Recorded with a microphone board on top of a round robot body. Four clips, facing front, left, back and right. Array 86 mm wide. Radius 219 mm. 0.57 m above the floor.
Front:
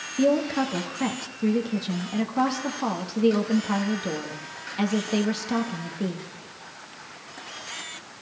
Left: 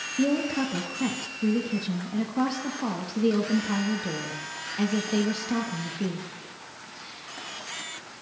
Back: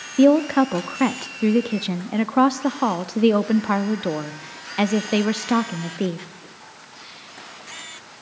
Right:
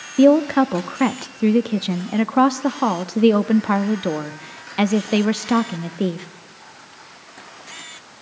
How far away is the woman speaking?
About 1.4 m.